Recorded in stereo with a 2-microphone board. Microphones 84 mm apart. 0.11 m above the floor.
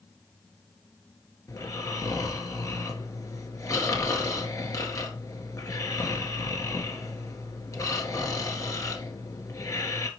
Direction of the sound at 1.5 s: 40° left (ahead or behind).